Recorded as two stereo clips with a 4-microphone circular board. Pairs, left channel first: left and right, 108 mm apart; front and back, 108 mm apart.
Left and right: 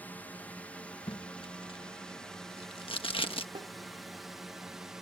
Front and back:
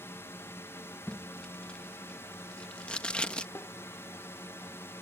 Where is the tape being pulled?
80° left.